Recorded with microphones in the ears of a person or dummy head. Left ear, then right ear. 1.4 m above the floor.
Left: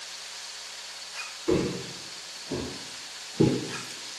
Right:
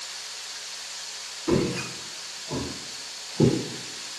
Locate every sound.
1.5 s footsteps: 30° right (ahead or behind), 1.6 m; by 3.6 s 5° left (ahead or behind), 1.5 m